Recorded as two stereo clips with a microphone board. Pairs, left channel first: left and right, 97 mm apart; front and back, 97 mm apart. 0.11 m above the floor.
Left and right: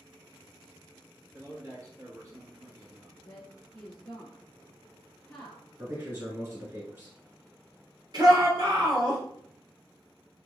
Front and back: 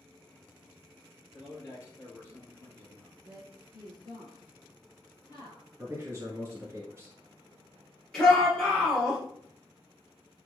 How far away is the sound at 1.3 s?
About 2 m.